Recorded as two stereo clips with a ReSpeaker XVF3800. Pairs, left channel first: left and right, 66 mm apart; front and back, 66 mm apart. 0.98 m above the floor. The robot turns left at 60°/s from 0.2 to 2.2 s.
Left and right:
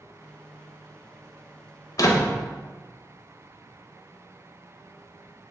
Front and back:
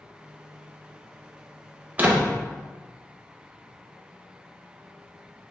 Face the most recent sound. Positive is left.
turn(degrees=105)